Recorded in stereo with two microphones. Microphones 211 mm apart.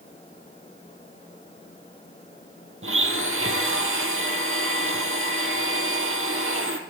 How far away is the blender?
About 1.1 m.